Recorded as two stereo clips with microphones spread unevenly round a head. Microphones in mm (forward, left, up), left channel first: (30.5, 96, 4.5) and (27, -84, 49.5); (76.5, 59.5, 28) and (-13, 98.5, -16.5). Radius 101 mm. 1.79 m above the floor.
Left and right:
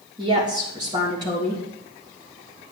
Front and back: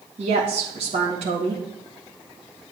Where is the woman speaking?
160° right, 3 m.